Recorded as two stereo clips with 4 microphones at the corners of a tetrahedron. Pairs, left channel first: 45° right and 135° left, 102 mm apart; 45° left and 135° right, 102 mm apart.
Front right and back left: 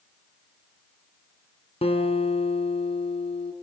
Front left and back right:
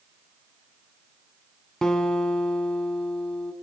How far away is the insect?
I don't hear an insect.